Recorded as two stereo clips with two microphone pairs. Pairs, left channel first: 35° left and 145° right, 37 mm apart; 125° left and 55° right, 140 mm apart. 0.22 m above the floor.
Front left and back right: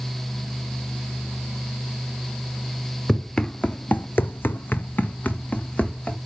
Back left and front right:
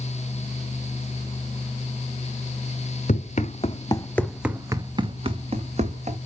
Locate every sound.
3.1 s running footsteps: 100° left, 1.3 m; by 6.2 s 20° right, 2 m